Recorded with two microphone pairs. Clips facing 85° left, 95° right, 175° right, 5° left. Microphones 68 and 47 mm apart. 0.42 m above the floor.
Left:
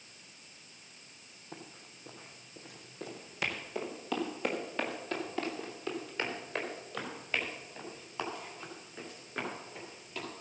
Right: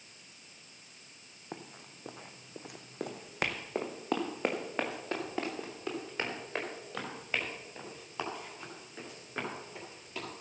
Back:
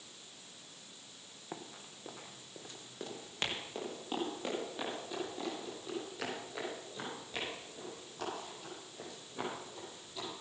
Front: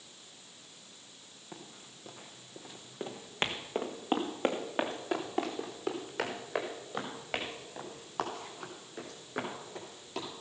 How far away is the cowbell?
No cowbell in this recording.